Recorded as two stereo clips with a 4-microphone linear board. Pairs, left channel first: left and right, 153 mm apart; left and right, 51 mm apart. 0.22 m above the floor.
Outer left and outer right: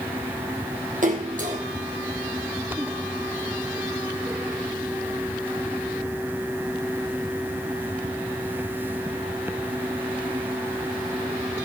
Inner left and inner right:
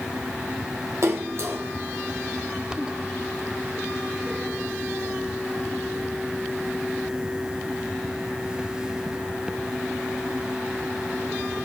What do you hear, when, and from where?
1.0 s a splash: 60° right (ahead or behind), 2.5 m